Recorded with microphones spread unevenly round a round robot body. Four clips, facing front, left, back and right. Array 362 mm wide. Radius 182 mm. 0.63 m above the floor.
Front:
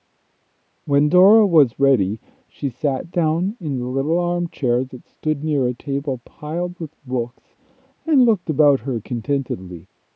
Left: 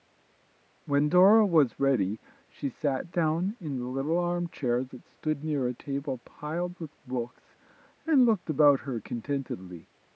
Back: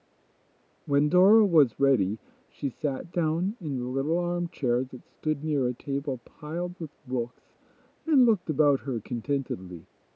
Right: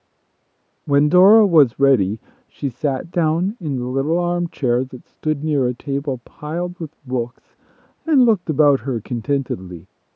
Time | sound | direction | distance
0.9 | a man speaking | 40° right | ?